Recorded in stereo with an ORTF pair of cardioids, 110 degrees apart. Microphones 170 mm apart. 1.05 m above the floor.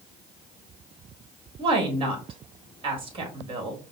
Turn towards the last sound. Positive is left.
turn(degrees=-30)